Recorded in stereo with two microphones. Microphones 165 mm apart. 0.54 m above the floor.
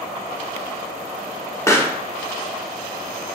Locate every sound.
1.7 s a pop: 15° left (ahead or behind), 0.6 m